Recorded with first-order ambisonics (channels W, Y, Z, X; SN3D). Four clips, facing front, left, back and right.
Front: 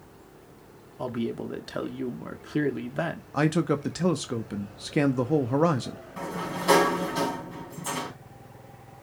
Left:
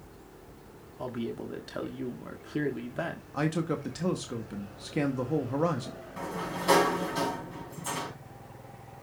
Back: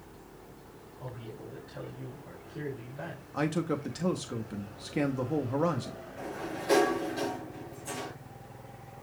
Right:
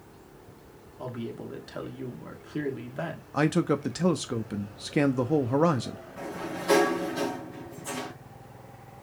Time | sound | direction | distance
1.0 | a man speaking | 5° left | 1.2 m
3.3 | a man speaking | 45° right | 0.8 m
6.2 | a sliding door | 25° left | 4 m